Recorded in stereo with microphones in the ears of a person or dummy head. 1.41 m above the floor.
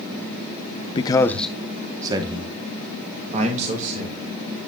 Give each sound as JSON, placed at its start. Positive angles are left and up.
{"t": 0.9, "sound": "a man speaking", "side_deg": 25, "distance_m": 0.7}